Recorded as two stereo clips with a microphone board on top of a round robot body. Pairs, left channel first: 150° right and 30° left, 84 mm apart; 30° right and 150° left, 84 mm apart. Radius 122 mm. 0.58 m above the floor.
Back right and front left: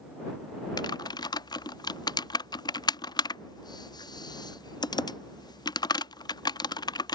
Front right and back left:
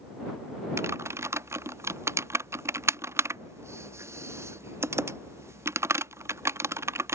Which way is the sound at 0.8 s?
160° right.